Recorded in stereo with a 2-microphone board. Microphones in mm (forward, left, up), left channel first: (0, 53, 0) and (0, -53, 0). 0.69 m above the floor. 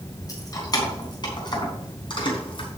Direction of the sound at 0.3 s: 35° left (ahead or behind).